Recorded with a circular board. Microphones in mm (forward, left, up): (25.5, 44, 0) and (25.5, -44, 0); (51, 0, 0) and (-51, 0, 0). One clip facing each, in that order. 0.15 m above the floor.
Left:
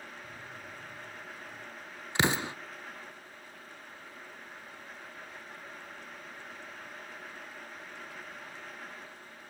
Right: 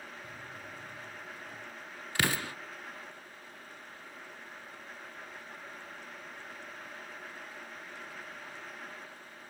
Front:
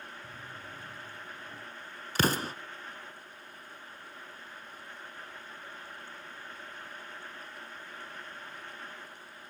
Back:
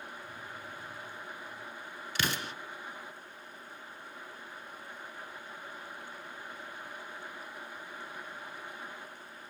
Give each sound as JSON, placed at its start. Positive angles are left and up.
{"t": 0.2, "sound": "a drawer", "azimuth_deg": -30, "distance_m": 8.0}
{"t": 2.1, "sound": "an explosion", "azimuth_deg": 25, "distance_m": 1.0}